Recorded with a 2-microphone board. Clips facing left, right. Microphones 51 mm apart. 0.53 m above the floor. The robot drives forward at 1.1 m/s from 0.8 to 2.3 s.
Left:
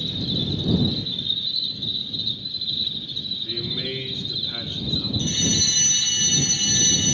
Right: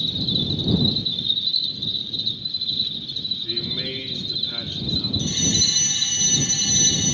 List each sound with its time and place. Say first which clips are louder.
0.0 s an insect: right 1 dB; 45° left (ahead or behind), 0.9 m; by 7.2 s 15° left (ahead or behind), 2.5 m
3.4 s a man speaking: left 1 dB; 10° left (ahead or behind), 6 m
5.2 s a fire alarm: left 1 dB; 30° left (ahead or behind), 4 m